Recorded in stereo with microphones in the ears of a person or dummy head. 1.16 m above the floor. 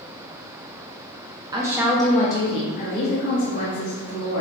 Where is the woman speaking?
20° right (ahead or behind), 0.8 m; by 4.4 s 60° left (ahead or behind), 1.7 m.